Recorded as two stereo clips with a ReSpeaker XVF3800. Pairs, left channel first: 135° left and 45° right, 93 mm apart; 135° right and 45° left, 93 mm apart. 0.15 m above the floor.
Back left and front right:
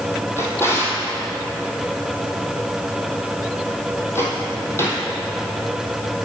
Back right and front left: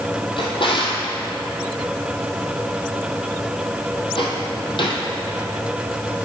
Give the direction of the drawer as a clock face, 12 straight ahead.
5 o'clock.